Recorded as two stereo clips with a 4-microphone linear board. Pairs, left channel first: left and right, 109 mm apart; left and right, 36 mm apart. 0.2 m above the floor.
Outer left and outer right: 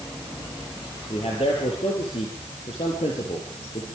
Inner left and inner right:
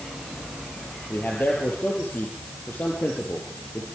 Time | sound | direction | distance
1.1 | a man speaking | 75° left (ahead or behind) | 5.5 m